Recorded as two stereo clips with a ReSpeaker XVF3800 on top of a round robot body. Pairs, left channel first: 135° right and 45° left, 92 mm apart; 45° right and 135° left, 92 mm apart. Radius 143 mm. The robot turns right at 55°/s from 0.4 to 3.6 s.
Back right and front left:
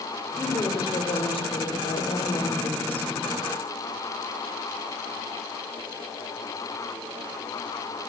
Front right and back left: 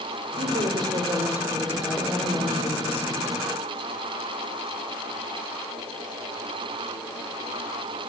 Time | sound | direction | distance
0.4 | a woman speaking | 155° left | 4 m